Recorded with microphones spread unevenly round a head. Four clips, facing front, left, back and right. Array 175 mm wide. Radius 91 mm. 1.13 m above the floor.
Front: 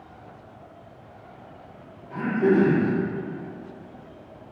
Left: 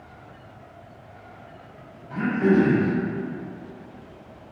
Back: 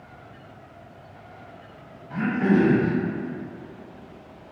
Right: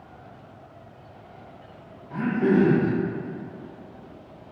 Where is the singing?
No singing in this recording.